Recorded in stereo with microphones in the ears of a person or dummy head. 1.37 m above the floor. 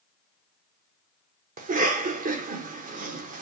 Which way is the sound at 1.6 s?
35° right (ahead or behind).